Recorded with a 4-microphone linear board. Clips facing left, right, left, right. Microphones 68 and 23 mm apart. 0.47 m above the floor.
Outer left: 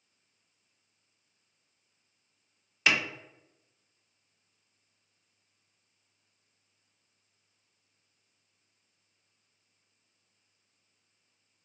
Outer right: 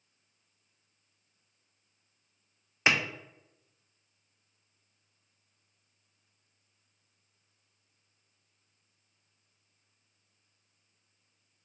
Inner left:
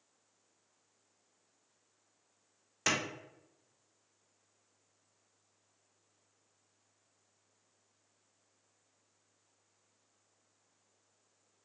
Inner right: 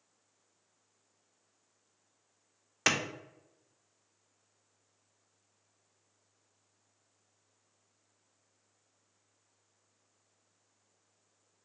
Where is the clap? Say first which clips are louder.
Outer right 1 dB, inner right 3 dB; 30° right (ahead or behind), 0.6 m.